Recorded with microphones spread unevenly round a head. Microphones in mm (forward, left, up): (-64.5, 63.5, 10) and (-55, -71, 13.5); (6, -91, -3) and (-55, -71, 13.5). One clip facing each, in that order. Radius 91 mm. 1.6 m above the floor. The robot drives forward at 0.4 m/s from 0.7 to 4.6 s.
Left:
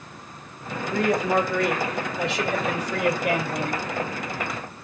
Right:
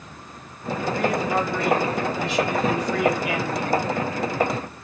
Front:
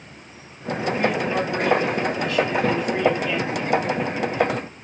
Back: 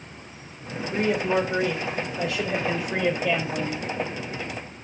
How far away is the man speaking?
About 2.5 m.